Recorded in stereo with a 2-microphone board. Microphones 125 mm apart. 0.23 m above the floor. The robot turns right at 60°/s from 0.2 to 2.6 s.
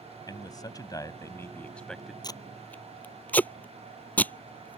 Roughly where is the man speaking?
Left.